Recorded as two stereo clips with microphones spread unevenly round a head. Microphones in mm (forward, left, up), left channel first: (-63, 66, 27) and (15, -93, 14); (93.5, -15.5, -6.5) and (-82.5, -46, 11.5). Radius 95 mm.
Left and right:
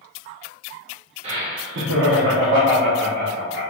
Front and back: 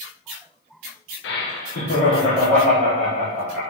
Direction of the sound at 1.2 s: 5° right.